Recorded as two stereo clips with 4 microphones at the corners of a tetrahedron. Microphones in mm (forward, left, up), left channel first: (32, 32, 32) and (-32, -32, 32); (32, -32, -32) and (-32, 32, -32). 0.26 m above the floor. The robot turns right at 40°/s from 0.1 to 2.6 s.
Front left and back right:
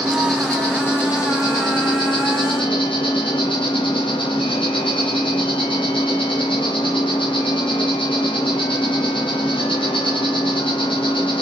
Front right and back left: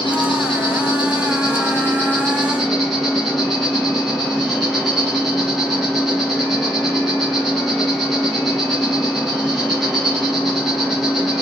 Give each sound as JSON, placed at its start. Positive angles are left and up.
{"t": 0.0, "sound": "an insect", "azimuth_deg": -55, "distance_m": 2.5}